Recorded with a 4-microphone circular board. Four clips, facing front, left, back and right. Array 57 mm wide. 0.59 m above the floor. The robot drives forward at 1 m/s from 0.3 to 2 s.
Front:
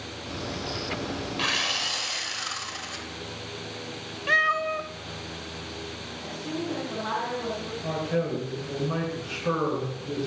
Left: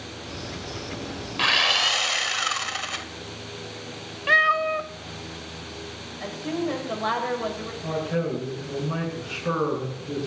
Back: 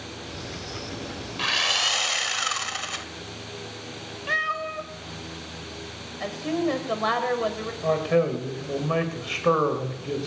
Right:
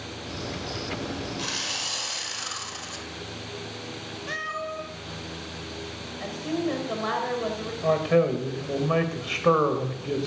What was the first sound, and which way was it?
Sawing, 85° left.